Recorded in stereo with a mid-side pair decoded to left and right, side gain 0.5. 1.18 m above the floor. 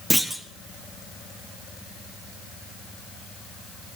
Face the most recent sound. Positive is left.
turn(degrees=0)